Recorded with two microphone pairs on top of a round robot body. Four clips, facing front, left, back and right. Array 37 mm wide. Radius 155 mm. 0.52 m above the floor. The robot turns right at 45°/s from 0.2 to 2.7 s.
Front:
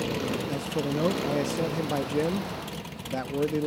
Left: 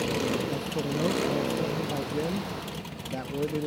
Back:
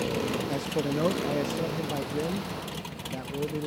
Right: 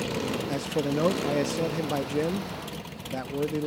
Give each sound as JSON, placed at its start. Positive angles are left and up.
{"t": 0.5, "sound": "a man speaking", "azimuth_deg": -115}